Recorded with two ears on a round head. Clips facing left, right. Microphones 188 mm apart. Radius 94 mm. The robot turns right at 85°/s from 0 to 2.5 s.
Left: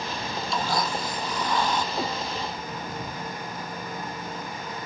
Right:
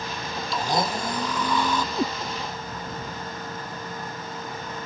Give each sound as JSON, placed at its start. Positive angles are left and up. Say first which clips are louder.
{"t": 0.5, "sound": "a blender", "louder": "right 3 dB", "azimuth_deg": 180}
{"t": 1.9, "sound": "a cat meowing", "louder": "right 3 dB", "side_deg": -90}